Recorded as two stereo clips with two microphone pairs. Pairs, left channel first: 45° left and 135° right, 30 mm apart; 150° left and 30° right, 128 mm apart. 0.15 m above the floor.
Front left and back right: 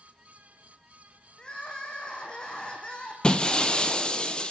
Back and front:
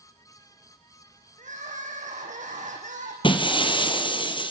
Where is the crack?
No crack in this recording.